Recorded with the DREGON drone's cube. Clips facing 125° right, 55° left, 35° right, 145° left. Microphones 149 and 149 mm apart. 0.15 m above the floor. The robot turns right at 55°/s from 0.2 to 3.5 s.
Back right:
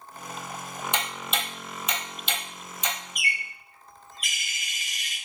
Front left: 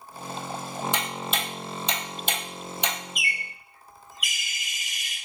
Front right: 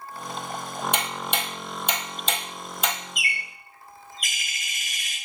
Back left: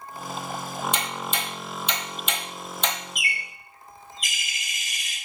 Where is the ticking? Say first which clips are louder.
Front left 1 dB, front right 1 dB; 55° right, 1.0 m; by 3.0 s 55° left, 1.0 m.